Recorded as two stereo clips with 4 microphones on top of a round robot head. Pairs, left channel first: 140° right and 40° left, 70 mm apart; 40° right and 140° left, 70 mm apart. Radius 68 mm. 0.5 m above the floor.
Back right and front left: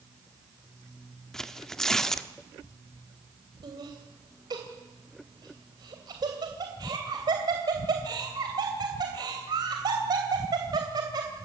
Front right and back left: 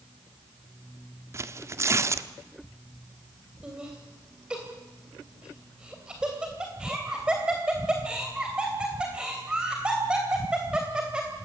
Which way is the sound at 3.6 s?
60° left.